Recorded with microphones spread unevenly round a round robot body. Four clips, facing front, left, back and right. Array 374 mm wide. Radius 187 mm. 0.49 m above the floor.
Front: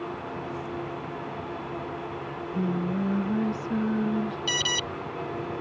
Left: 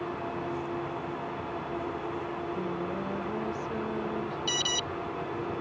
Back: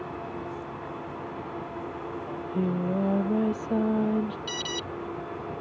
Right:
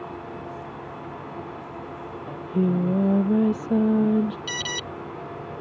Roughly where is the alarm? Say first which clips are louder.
Right 1 dB, front 3 dB; ahead right.